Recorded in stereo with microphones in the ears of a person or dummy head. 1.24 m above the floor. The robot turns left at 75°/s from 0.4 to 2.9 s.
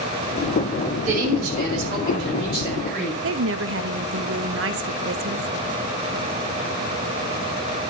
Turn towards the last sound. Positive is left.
turn(degrees=-60)  # may be behind; listen again after turning